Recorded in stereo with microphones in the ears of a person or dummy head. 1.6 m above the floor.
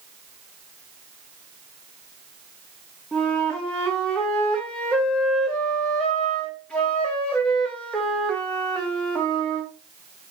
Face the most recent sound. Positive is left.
turn(degrees=5)  # may be behind; listen again after turning